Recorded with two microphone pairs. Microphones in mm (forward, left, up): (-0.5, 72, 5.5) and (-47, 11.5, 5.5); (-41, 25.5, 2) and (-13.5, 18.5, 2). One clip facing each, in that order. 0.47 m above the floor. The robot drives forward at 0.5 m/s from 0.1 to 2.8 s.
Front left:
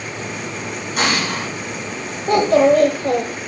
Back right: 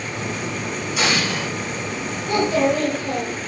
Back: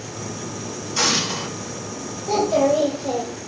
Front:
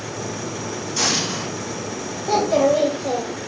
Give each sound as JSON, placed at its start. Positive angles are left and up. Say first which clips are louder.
{"t": 0.9, "sound": "an explosion", "louder": "front left 2 dB, back 2 dB", "azimuth_deg": 90, "distance_m": 4.0}
{"t": 2.3, "sound": "a child speaking", "louder": "front left 6 dB, front 1 dB", "azimuth_deg": 65, "distance_m": 1.5}